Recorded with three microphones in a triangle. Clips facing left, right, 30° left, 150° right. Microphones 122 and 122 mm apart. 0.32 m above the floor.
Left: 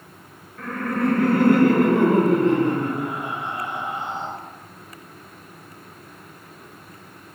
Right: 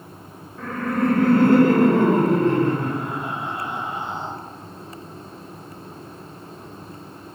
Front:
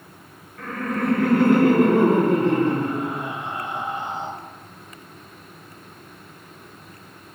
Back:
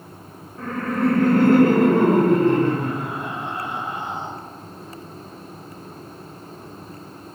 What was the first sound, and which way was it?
Laughter, 160° right.